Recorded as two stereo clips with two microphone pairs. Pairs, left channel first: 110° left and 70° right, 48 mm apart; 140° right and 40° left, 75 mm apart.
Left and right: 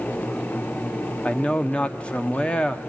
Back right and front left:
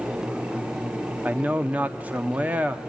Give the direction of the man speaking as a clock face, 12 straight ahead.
9 o'clock.